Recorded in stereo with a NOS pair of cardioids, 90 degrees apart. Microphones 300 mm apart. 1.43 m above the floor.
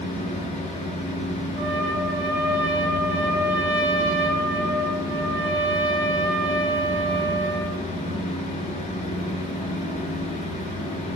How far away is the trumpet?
About 7.5 m.